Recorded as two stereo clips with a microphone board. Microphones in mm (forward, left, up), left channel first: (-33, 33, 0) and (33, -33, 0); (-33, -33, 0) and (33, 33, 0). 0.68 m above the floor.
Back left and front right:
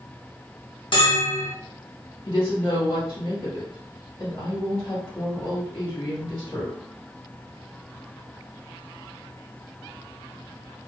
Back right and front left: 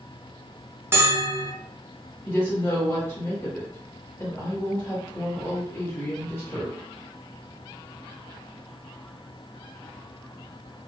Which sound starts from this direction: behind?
A woman speaking, at 2.2 s.